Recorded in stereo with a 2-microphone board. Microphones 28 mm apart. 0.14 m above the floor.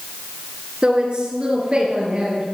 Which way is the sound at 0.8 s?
30° right (ahead or behind).